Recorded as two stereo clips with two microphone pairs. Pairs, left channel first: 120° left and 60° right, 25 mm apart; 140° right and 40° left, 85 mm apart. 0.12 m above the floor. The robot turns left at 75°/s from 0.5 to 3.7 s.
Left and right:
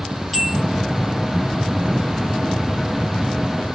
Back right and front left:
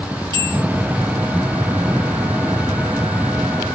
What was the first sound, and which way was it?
A bell, 30° left.